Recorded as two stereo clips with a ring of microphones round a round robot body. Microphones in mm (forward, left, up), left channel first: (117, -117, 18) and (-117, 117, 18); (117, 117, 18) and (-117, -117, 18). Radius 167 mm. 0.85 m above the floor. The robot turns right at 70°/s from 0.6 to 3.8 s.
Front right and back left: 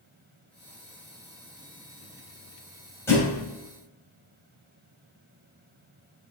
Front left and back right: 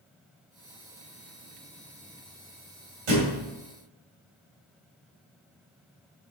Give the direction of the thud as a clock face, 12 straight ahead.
4 o'clock.